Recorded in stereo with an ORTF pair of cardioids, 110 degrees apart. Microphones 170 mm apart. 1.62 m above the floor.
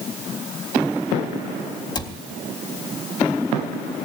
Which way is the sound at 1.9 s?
25° left.